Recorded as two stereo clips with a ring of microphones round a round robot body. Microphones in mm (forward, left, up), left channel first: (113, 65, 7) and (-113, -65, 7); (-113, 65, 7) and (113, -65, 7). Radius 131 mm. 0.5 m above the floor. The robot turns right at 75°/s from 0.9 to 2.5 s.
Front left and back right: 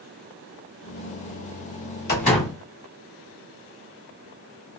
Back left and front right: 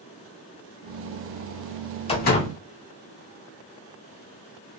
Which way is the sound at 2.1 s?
80° left.